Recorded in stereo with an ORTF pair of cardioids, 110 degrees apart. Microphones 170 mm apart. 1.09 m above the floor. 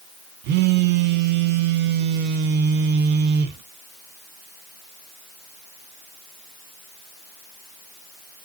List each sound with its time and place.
0.4 s a phone buzzing: 70° right, 1.1 m